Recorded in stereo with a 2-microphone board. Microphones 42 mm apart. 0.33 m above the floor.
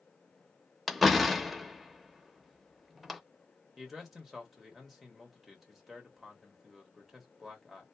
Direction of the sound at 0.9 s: Centre (ahead or behind).